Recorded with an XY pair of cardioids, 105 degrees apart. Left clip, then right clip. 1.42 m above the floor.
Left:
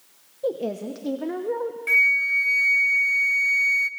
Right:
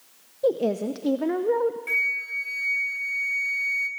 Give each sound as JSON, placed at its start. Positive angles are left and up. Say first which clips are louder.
{"t": 0.4, "sound": "a woman speaking", "louder": "right 4 dB", "azimuth_deg": -20, "distance_m": 0.9}
{"t": 1.9, "sound": "a flute", "louder": "left 7 dB", "azimuth_deg": 35, "distance_m": 0.8}